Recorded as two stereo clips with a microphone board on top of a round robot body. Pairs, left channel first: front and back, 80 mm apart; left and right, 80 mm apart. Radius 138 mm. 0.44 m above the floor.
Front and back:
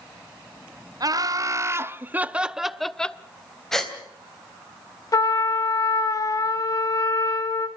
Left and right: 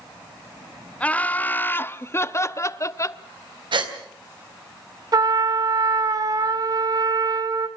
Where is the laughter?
160° left, 1.3 m; by 3.2 s 70° left, 1.0 m.